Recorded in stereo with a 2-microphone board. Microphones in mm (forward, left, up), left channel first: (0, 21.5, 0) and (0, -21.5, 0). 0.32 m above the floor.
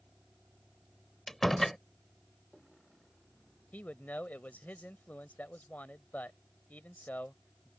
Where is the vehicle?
10° right (ahead or behind); by 7.8 s 20° left (ahead or behind).